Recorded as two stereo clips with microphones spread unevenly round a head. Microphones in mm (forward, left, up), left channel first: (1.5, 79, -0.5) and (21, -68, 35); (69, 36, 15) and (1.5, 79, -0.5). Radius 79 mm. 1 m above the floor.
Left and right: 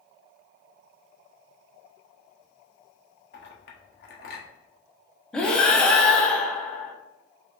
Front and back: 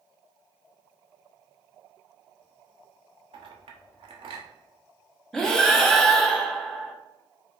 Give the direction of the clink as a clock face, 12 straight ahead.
8 o'clock.